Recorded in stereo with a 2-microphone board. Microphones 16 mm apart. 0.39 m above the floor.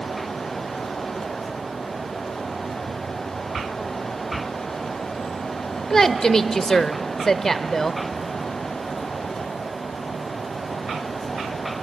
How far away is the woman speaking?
About 1.0 m.